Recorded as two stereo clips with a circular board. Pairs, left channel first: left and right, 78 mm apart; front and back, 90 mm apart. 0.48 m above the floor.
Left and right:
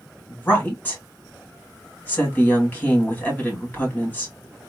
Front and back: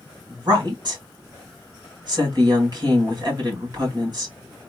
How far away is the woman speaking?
About 1.8 m.